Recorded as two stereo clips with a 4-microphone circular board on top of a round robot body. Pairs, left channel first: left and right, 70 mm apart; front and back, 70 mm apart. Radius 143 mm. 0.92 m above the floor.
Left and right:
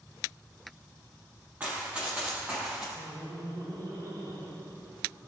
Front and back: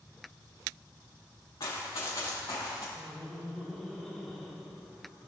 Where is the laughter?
90° right, 3.5 m.